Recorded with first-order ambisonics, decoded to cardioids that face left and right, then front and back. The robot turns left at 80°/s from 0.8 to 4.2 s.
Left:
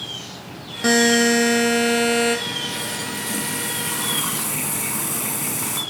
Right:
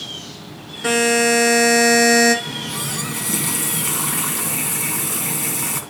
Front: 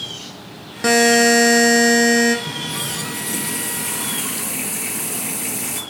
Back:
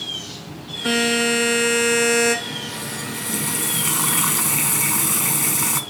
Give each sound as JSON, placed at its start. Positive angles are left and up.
{"t": 0.8, "sound": "a buzzer", "azimuth_deg": 25, "distance_m": 4.5}
{"t": 2.5, "sound": "a running tap", "azimuth_deg": -35, "distance_m": 3.0}